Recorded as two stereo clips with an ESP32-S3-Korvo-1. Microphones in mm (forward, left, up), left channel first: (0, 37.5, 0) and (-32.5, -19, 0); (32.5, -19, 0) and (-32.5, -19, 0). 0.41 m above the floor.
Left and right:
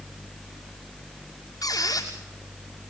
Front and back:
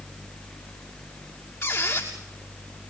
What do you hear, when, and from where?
1.6 s a squeak: 45° left, 6.5 m